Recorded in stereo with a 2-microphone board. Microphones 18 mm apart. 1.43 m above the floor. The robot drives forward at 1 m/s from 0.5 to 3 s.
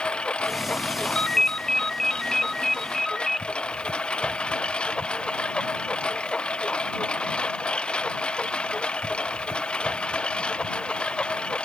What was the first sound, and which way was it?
A lawn mower, 65° left (ahead or behind).